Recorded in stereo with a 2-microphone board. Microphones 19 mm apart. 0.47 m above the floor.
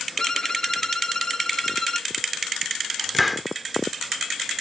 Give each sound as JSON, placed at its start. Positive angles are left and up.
{"t": 0.2, "sound": "a violin", "side_deg": 30}
{"t": 3.1, "sound": "a hiss", "side_deg": 0}